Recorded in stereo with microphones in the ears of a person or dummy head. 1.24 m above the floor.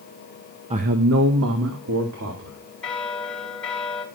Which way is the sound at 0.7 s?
25° right (ahead or behind).